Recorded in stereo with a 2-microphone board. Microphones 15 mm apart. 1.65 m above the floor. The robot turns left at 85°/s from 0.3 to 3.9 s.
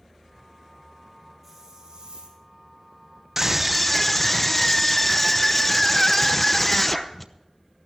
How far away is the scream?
About 0.8 m.